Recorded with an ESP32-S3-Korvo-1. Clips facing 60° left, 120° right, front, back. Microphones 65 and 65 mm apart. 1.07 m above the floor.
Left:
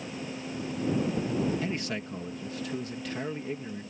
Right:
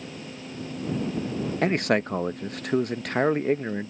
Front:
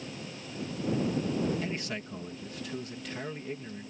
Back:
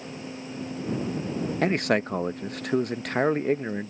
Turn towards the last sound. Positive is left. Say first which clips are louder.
# right 10 dB, back 12 dB
turn(degrees=-150)